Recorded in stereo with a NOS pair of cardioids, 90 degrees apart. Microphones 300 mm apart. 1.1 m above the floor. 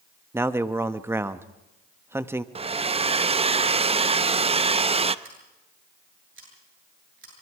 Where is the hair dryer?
20° right, 0.7 m.